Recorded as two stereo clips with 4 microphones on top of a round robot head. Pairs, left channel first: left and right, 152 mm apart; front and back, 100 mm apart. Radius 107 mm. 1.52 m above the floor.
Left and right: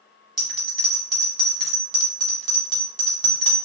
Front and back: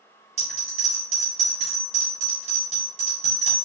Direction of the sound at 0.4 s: 150° right.